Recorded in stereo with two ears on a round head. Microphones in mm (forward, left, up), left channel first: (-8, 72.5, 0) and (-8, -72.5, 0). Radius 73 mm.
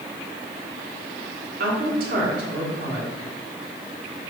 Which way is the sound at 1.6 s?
55° right (ahead or behind).